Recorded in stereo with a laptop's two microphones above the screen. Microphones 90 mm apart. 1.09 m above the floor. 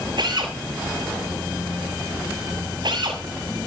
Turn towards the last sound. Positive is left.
turn(degrees=-60)  # may be behind; listen again after turning